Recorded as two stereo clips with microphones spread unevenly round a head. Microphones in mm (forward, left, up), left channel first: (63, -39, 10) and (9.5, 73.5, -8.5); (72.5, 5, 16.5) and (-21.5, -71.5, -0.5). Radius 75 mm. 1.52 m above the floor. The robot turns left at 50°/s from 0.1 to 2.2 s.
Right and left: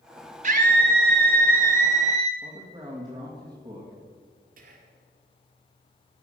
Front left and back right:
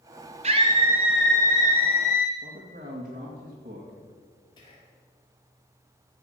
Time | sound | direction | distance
0.4 | a scream | 165° left | 1.7 m
2.4 | a man speaking | straight behind | 2 m
4.6 | whispering | 105° left | 2.5 m